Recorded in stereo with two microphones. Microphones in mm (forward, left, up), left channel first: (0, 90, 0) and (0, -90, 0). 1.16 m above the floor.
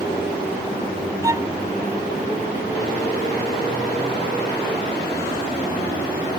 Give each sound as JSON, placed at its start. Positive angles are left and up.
{"t": 1.2, "sound": "a violin", "side_deg": -20}